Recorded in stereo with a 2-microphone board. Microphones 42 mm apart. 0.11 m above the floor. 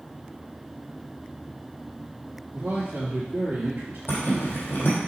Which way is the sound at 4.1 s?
60° left (ahead or behind).